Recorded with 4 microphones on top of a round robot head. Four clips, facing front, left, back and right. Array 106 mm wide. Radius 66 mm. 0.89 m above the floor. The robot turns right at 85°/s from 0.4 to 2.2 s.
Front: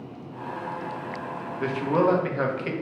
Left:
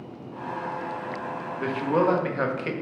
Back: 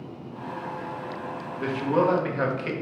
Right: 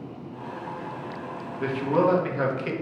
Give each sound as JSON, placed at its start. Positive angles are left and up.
{"t": 1.6, "sound": "a man speaking", "azimuth_deg": 25, "distance_m": 0.8}